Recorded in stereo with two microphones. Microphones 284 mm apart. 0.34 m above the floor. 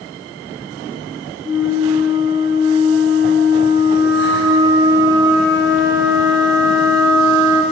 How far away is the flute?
About 1.7 m.